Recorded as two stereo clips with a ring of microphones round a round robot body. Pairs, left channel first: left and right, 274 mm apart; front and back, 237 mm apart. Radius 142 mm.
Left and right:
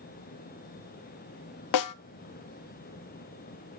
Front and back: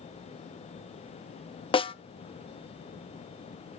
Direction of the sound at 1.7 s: 70° left.